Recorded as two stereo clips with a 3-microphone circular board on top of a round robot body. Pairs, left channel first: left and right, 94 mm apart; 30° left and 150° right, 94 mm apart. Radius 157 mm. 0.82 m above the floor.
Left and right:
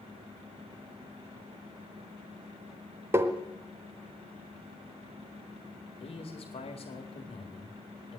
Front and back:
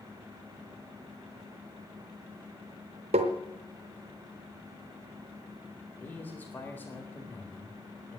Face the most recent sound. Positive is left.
turn(degrees=100)